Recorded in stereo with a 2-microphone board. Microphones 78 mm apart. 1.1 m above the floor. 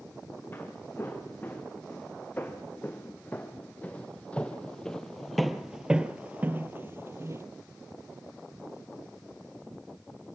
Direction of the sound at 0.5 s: 25° left (ahead or behind).